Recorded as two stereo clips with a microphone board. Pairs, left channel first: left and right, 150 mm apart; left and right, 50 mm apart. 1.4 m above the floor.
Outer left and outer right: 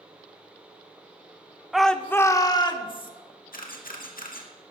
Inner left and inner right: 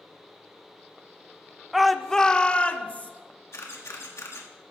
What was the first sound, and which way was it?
A shout, 5° right (ahead or behind).